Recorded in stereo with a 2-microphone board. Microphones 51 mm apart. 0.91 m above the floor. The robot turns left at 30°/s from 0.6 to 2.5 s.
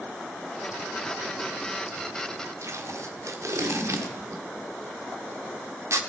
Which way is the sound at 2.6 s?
75° right (ahead or behind).